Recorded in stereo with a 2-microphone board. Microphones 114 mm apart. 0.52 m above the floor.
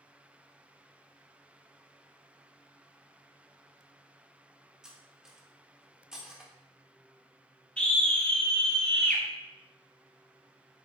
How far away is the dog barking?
No dog barking in this recording.